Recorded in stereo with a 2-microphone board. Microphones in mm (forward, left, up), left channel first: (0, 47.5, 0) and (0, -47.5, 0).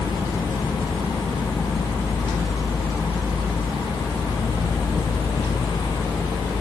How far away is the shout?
No shout in this recording.